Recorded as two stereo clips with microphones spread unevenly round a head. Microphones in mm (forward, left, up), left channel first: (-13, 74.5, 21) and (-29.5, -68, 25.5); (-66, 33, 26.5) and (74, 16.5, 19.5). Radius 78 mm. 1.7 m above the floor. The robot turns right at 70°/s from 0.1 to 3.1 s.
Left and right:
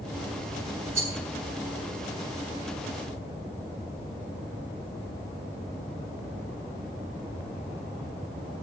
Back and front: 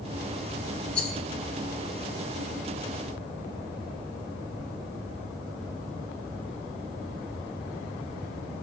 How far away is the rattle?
About 1.0 m.